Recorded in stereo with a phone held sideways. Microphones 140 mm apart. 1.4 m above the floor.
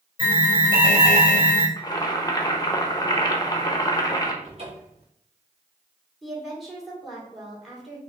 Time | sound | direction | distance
0.2 | an alarm | 35° right (ahead or behind) | 2.5 m
1.8 | boiling | 30° left (ahead or behind) | 0.7 m
4.4 | a cupboard door | 45° right (ahead or behind) | 2 m
6.2 | a woman speaking | centre (ahead or behind) | 2.0 m